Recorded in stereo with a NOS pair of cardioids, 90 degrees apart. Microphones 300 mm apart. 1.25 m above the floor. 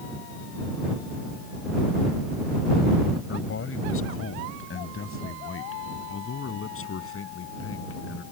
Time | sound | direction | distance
3.3 | a man speaking | 45° left | ?